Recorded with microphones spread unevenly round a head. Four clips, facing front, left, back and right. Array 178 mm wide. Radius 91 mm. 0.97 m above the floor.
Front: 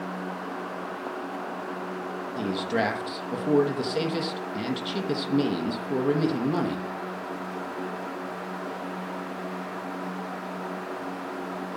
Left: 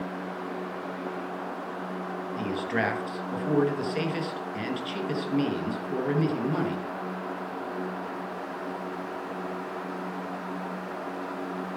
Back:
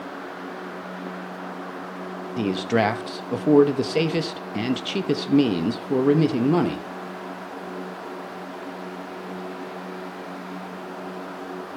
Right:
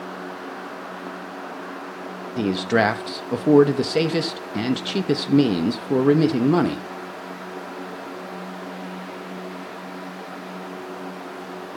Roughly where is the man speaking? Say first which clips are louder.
Right 10 dB, back 5 dB; behind right.